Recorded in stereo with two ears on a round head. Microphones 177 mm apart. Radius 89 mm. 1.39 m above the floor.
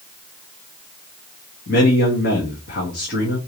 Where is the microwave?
No microwave in this recording.